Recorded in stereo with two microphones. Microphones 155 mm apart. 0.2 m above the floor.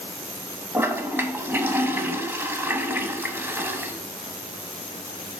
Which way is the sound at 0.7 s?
15° right (ahead or behind).